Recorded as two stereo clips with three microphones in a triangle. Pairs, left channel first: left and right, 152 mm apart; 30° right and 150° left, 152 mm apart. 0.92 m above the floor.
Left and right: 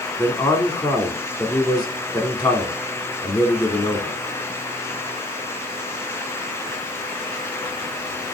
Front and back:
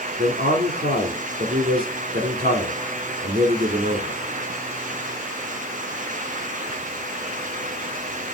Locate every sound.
0.2 s a man speaking: 150° left, 2.5 m